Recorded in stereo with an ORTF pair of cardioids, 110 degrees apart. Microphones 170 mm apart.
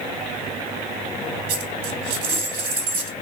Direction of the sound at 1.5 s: 60° right.